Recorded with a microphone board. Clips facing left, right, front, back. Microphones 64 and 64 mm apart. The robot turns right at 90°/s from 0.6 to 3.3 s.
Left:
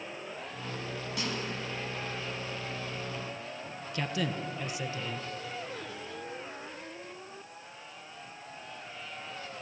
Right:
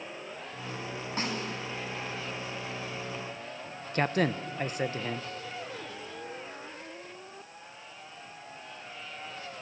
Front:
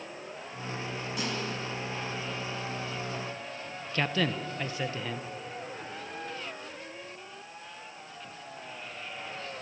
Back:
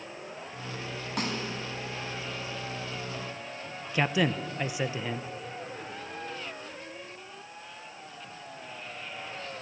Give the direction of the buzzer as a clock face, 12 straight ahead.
No buzzer in this recording.